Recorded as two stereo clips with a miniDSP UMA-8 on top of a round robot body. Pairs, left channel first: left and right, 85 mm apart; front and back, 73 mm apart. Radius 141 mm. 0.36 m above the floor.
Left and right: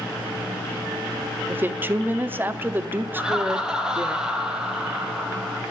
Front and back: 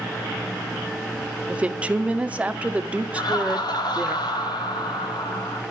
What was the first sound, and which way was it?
A woman speaking, 125° right.